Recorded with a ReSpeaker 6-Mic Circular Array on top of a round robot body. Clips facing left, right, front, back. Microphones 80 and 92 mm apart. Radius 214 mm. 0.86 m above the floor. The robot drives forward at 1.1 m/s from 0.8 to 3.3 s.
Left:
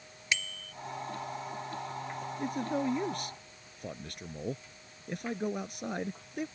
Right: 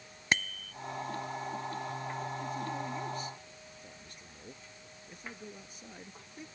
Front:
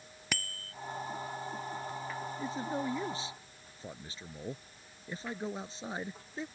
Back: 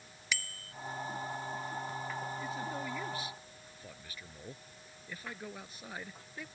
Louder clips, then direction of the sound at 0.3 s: Right 3 dB, back 1 dB; 40° right.